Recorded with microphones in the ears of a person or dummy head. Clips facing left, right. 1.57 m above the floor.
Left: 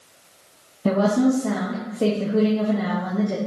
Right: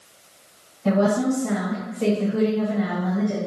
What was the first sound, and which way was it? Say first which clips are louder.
A woman speaking: left 1 dB; 55° left (ahead or behind).